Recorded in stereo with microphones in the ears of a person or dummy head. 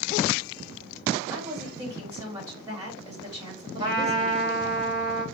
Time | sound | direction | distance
1.3 | a woman speaking | 10° right (ahead or behind) | 1.9 m
3.8 | a trumpet | 20° right (ahead or behind) | 1.2 m